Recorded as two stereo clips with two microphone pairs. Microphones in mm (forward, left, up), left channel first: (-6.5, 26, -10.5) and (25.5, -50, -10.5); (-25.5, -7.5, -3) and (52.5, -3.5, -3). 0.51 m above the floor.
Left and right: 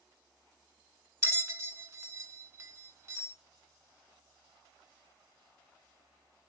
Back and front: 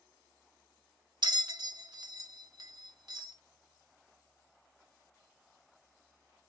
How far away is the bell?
About 1.1 m.